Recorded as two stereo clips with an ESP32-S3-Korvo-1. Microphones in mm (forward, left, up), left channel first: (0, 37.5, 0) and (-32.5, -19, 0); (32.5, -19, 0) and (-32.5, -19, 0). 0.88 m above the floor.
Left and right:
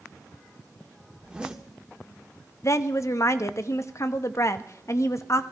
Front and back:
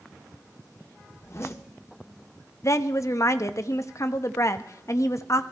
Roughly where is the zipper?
Ahead right.